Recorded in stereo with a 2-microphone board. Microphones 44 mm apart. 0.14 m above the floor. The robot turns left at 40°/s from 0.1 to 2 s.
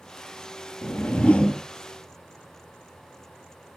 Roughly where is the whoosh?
Ahead left.